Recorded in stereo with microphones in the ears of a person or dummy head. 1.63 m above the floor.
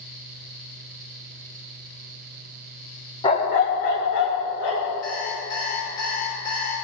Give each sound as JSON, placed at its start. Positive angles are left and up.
{"t": 3.2, "sound": "a dog barking", "side_deg": 20, "distance_m": 1.2}
{"t": 5.0, "sound": "an alarm clock", "side_deg": 20, "distance_m": 5.0}